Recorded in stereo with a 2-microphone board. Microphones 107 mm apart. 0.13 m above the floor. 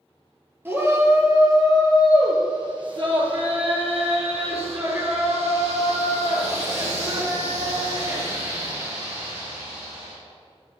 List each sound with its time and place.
0.7 s a shout: 20° right (ahead or behind), 2 m; by 10.2 s 80° right, 5.5 m